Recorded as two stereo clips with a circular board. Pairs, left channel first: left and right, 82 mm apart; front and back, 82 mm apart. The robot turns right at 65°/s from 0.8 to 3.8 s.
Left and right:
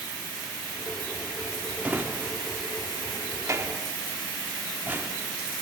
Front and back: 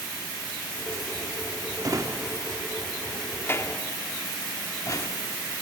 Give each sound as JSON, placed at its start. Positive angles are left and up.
{"t": 1.8, "sound": "a drawer", "azimuth_deg": -160, "distance_m": 0.9}